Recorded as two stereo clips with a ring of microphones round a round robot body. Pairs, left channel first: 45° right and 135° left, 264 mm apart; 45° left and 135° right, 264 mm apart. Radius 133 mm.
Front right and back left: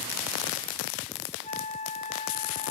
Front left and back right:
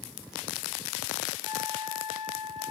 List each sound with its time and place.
1.4 s a flute: 20° left